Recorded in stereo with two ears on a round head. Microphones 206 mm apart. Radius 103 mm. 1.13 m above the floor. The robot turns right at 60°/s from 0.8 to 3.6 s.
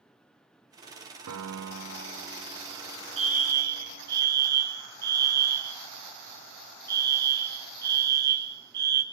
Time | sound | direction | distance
1.3 | a piano | 95° right | 0.8 m
3.2 | a fire alarm | 25° right (ahead or behind) | 2 m